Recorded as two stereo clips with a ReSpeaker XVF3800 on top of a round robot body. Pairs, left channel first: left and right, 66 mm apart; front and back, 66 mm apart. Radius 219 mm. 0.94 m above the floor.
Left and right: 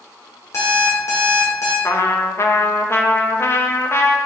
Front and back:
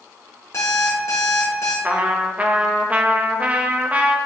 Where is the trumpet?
120° left, 1.0 m.